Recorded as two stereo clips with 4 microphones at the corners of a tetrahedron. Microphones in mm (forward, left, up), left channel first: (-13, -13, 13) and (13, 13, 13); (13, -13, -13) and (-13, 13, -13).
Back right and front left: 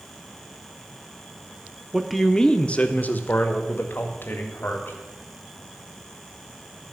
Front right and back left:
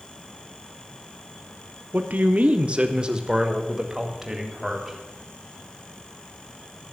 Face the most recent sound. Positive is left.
turn(degrees=-140)